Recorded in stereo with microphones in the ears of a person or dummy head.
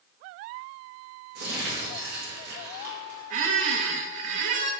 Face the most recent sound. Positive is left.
turn(degrees=-50)  # may be behind; listen again after turning